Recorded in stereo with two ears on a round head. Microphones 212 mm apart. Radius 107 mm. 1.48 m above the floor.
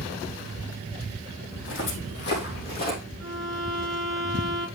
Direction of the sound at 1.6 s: 55° left (ahead or behind).